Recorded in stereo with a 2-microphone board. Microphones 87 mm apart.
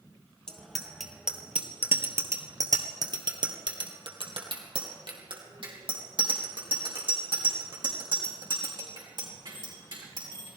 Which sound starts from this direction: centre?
A bicycle bell, at 0.5 s.